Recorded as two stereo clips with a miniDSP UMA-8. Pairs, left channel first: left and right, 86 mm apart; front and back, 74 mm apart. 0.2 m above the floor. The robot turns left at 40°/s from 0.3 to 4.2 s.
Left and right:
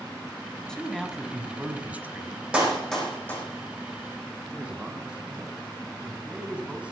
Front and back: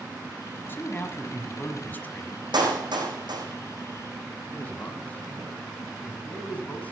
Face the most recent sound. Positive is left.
turn(degrees=-30)